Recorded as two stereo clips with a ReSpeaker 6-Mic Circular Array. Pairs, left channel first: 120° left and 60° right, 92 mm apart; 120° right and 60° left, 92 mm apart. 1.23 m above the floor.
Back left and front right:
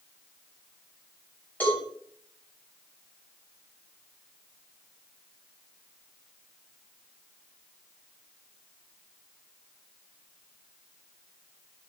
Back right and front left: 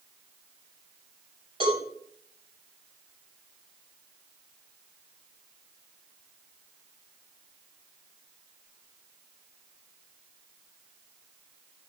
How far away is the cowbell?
About 9 m.